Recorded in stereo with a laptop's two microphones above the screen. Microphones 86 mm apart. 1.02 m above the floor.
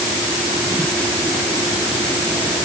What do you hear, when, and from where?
Only background noise.